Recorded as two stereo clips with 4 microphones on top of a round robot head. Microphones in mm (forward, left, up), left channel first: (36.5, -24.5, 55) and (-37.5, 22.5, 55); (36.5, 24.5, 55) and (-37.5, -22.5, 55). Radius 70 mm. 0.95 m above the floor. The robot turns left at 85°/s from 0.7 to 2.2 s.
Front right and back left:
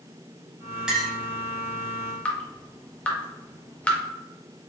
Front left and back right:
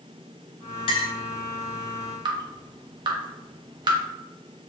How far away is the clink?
About 0.6 m.